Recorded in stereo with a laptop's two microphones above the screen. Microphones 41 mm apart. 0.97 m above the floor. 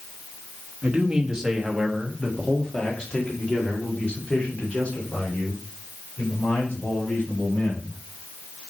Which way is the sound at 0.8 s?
30° right (ahead or behind).